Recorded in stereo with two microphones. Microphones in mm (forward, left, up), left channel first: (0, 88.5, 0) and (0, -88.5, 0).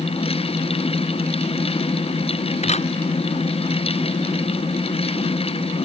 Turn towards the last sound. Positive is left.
turn(degrees=40)  # may be behind; listen again after turning